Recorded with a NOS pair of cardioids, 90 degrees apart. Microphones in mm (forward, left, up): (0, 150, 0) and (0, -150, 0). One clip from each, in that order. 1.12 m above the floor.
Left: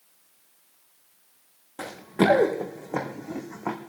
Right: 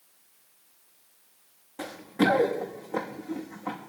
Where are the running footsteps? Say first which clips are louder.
Left 2 dB; 40° left, 3.5 m; by 3.8 s 60° left, 2.5 m.